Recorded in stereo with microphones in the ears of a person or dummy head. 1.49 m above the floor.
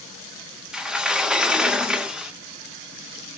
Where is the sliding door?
Centre (ahead or behind), 0.6 m.